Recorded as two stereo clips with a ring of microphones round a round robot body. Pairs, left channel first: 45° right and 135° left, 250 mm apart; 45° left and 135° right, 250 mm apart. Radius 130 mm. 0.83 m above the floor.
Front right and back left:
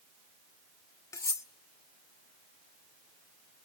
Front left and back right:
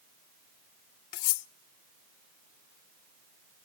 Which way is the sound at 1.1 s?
35° left.